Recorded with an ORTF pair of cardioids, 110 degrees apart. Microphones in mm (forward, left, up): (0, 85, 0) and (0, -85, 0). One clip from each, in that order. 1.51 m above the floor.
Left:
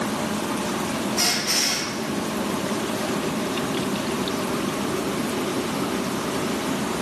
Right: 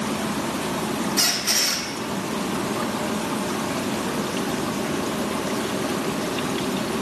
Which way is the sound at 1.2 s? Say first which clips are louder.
Right 1 dB; 55° right.